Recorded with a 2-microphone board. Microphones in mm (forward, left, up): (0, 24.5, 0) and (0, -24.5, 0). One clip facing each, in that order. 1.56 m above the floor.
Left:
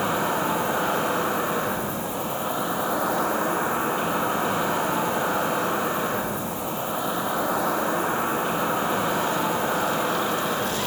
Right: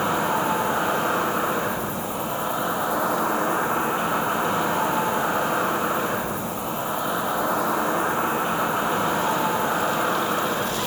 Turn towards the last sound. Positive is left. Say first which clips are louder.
# right 1 dB
turn(degrees=-10)  # may be behind; listen again after turning